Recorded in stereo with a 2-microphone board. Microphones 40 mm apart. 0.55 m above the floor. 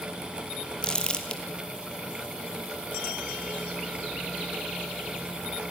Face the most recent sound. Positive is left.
turn(degrees=20)  # may be behind; listen again after turning